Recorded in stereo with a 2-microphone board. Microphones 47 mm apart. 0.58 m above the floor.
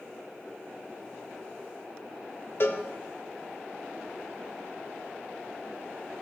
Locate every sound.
2.6 s a cowbell: 55° left (ahead or behind), 1.2 m